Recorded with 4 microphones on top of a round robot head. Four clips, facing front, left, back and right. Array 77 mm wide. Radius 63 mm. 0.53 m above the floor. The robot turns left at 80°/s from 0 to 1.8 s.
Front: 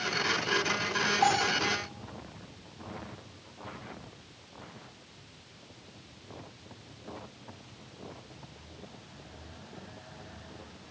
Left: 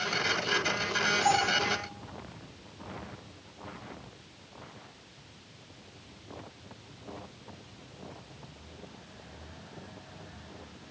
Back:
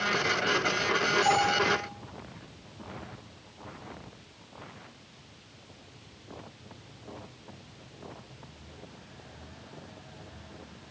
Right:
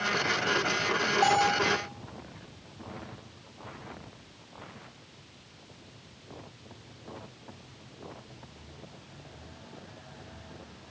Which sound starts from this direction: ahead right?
A bell, at 1.2 s.